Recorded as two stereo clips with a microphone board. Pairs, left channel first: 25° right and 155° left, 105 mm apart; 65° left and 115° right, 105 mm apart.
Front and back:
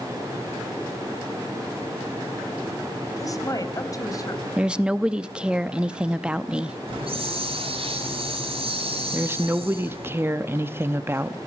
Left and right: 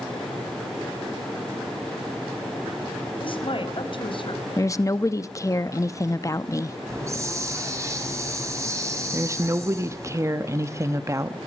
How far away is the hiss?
About 4 m.